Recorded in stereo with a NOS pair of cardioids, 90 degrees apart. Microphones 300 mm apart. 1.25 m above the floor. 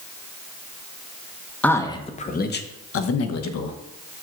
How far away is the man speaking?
About 1.0 m.